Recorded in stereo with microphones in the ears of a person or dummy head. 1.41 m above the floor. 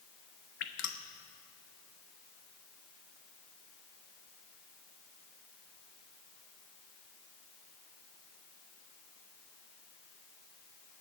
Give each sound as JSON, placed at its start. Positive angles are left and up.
{"t": 0.6, "sound": "dripping", "side_deg": 50, "distance_m": 1.1}